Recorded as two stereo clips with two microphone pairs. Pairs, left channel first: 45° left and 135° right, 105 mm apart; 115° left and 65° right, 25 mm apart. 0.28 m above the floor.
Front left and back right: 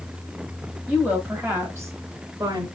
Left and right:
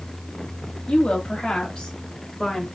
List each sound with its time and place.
0.9 s a woman speaking: 130° left, 1.6 m; by 2.7 s 170° right, 1.7 m